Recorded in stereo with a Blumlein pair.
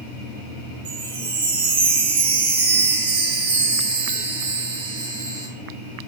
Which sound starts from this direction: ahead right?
A chime, at 0.8 s.